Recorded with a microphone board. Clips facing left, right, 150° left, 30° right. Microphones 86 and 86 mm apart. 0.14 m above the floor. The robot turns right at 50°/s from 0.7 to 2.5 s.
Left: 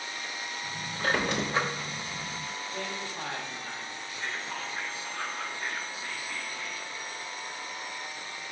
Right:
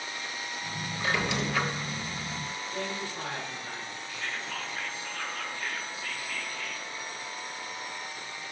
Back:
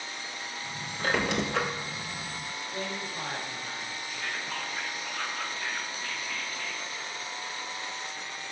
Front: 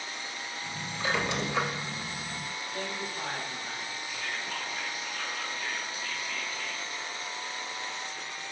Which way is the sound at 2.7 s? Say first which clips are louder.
Right 3 dB, back 1 dB; 155° right.